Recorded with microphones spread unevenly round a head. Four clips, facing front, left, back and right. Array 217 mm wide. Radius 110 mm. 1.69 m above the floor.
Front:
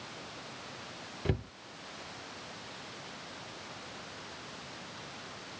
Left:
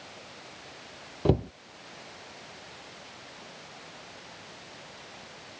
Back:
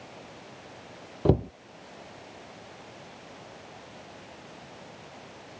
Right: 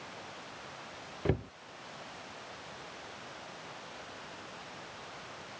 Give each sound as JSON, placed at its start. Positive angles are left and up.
{"t": 1.2, "sound": "a cupboard door", "azimuth_deg": 155}